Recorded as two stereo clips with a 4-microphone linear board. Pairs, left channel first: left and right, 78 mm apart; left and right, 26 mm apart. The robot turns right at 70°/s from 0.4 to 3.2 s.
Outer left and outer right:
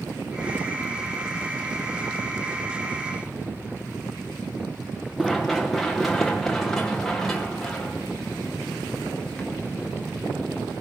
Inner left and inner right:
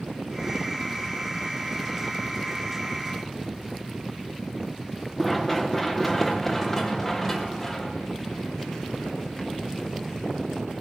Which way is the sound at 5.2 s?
Centre (ahead or behind).